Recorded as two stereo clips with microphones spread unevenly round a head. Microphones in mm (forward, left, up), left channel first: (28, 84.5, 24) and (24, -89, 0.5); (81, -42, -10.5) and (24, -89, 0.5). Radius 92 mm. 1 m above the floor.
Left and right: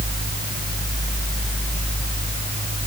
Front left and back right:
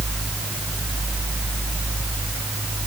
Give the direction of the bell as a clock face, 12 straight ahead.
No bell in this recording.